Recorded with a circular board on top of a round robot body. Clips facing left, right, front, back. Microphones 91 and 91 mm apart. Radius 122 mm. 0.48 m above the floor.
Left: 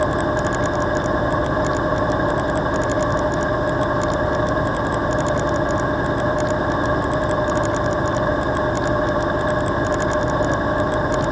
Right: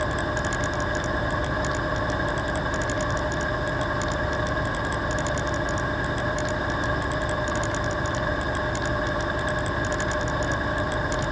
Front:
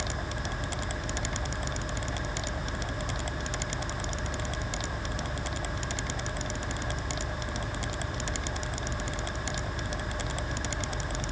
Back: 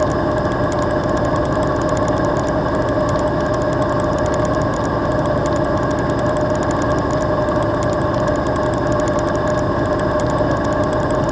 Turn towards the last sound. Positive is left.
turn(degrees=150)